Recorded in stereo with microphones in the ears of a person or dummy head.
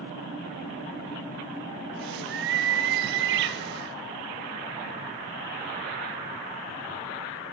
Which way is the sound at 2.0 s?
70° right (ahead or behind).